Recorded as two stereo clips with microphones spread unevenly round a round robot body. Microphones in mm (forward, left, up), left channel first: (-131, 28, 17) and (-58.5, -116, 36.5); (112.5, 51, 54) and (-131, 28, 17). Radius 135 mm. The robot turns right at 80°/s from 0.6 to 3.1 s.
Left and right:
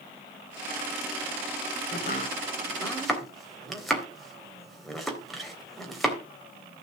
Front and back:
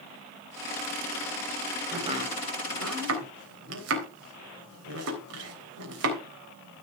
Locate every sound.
1.9 s chopping: 110° left, 3.5 m; by 6.2 s 155° right, 3.5 m